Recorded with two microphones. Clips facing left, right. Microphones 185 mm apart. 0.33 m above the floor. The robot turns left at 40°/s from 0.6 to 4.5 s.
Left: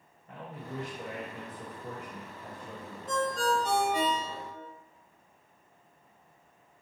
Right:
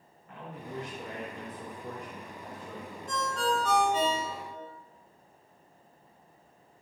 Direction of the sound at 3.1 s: 55° left.